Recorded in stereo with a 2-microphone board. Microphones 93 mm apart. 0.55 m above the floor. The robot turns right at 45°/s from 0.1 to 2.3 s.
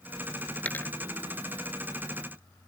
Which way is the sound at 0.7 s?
15° left (ahead or behind).